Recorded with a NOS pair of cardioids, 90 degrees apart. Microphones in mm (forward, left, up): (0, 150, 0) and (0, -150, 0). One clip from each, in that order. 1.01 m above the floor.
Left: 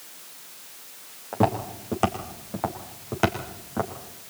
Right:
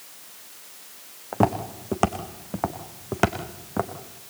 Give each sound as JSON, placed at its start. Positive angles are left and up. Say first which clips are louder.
{"t": 1.3, "sound": "footsteps", "louder": "right 1 dB", "azimuth_deg": -30, "distance_m": 4.0}